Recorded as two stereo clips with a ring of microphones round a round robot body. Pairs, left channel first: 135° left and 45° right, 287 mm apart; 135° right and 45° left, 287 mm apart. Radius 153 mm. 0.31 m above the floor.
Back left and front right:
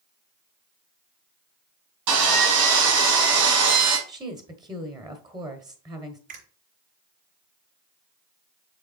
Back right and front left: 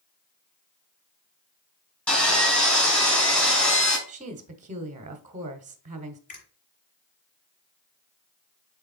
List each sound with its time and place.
2.1 s sawing: 50° right, 4.5 m
4.1 s a woman speaking: 15° left, 1.1 m
6.3 s a finger snap: 70° right, 5 m